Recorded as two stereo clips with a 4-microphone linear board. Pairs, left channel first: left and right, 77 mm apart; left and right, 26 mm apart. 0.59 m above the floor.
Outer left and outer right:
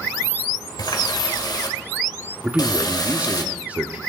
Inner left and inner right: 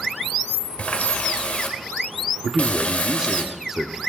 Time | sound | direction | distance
0.8 | a running tap | 60° left (ahead or behind) | 1.3 m
2.4 | a man speaking | 15° right (ahead or behind) | 1.0 m